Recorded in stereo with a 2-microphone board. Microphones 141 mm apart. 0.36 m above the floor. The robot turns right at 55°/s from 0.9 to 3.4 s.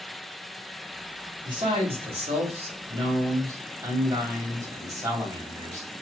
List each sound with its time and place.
1.4 s a man speaking: 140° right, 1.8 m; by 5.9 s 30° right, 1.8 m